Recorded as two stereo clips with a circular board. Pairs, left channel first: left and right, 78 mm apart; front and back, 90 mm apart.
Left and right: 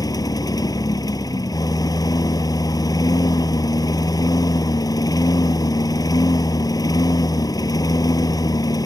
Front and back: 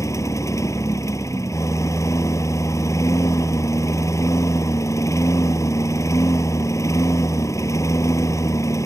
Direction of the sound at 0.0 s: 55° left.